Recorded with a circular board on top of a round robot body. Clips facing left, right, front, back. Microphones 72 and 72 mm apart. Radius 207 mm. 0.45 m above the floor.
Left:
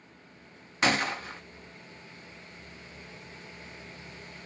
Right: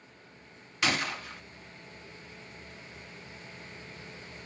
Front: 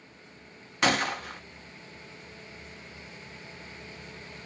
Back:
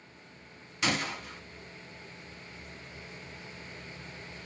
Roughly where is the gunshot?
Ahead left.